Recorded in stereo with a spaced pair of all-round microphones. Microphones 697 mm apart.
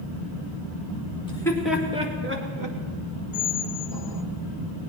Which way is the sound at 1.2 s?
10° left (ahead or behind).